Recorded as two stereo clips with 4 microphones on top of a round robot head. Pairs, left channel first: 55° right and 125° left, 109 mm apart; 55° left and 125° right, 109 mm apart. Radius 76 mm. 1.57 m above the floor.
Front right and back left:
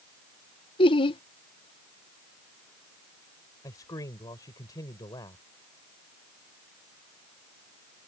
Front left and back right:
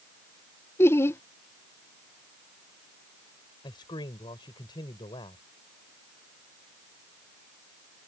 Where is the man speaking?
5° left.